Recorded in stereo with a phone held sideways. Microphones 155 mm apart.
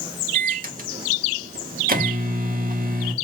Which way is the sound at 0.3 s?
65° right (ahead or behind).